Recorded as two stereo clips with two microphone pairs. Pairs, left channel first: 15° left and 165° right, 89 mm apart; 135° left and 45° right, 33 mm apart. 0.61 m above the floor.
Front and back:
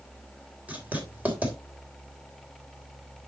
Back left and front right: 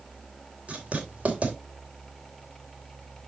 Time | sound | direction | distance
0.7 | writing | 95° right | 3 m